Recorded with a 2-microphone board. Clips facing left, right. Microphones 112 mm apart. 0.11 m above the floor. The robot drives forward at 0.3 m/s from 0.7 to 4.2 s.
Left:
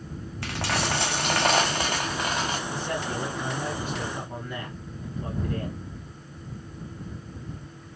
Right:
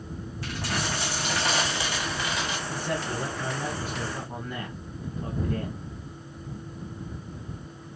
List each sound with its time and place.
0.4 s a dropped coin: 80° left, 0.6 m; by 2.6 s 40° left (ahead or behind), 0.9 m
2.7 s a man speaking: 5° right (ahead or behind), 1.9 m